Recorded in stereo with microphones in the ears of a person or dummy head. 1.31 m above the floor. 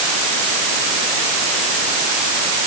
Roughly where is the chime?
I don't hear a chime.